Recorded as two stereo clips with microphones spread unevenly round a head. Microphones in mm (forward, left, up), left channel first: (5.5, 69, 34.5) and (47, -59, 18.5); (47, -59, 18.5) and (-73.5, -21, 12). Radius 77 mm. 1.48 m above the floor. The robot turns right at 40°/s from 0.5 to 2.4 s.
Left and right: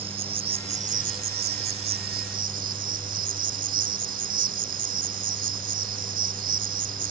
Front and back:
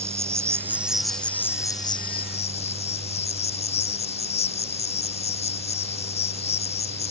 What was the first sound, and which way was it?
An insect, 130° right.